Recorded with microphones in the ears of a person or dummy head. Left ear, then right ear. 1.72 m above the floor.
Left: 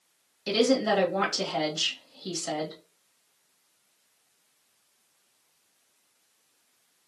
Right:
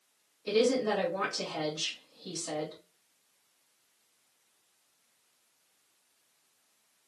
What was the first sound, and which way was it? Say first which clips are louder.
A woman speaking: left 3 dB; 60° left (ahead or behind).